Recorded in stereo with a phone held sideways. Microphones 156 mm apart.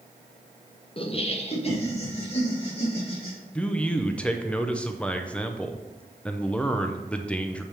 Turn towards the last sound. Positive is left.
turn(degrees=10)  # may be behind; listen again after turning